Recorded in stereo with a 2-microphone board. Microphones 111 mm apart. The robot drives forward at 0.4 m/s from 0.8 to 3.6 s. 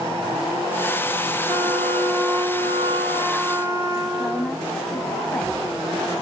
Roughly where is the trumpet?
Right.